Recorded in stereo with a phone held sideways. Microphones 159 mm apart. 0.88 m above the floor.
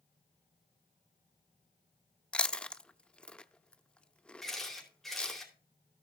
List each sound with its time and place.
2.3 s chewing: 5° left (ahead or behind), 0.6 m
4.4 s a camera shutter: centre (ahead or behind), 4 m